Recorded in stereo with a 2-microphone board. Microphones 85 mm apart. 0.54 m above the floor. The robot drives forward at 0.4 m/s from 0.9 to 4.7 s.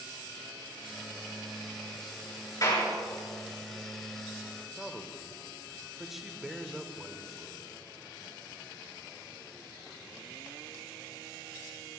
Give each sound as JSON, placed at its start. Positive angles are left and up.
{"t": 2.6, "sound": "a clap", "side_deg": 45, "distance_m": 5.5}
{"t": 4.8, "sound": "a man speaking", "side_deg": -5, "distance_m": 1.3}